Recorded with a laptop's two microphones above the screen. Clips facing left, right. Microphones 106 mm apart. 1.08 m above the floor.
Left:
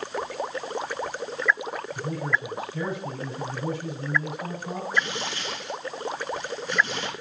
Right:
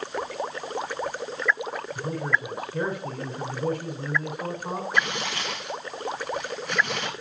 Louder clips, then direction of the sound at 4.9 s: Right 1 dB; 65° right (ahead or behind).